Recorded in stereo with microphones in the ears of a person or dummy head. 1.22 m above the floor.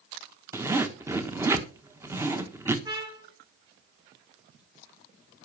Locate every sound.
0.5 s a zipper: 10° right (ahead or behind), 1.3 m
2.9 s a trumpet: 20° right (ahead or behind), 2 m